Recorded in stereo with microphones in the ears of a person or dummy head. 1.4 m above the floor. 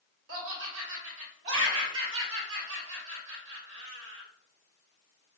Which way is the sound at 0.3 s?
80° right.